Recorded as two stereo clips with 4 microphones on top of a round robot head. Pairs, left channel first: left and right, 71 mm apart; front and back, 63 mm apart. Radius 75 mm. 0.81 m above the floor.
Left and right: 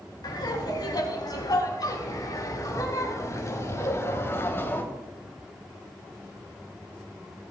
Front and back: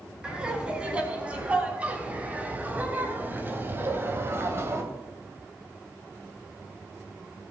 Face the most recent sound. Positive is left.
turn(degrees=145)